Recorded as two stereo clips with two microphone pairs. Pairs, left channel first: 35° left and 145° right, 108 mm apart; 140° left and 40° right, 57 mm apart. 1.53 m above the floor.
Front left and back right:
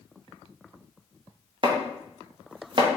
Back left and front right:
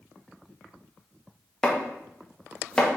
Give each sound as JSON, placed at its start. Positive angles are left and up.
{"t": 1.6, "sound": "chopping", "azimuth_deg": -145, "distance_m": 0.8}